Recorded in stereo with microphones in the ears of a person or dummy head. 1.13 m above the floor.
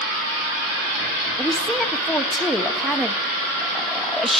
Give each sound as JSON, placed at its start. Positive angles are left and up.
{"t": 1.4, "sound": "a woman speaking", "side_deg": 5, "distance_m": 1.9}